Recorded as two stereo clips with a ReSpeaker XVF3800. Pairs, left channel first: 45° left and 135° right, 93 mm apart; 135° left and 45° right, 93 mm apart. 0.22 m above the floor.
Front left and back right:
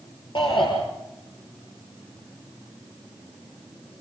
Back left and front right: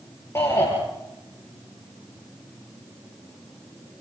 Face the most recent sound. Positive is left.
turn(degrees=75)